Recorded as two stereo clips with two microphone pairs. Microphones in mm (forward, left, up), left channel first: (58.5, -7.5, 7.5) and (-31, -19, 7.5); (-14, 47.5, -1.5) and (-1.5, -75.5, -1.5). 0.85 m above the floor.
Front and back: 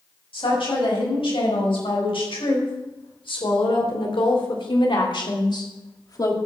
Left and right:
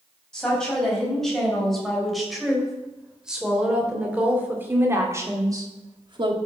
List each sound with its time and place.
0.3 s a woman speaking: 10° left, 5 m; by 6.4 s 45° right, 1.7 m